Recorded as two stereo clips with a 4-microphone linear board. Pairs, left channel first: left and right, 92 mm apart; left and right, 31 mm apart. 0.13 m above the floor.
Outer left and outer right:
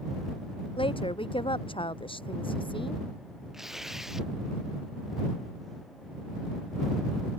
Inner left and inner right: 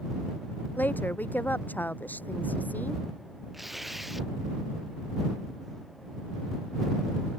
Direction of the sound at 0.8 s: 80° left.